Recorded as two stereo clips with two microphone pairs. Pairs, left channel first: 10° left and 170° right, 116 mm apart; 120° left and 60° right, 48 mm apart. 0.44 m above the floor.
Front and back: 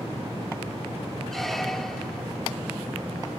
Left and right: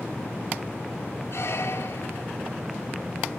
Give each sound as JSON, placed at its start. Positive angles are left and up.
{"t": 1.3, "sound": "a squeak", "azimuth_deg": 95, "distance_m": 1.0}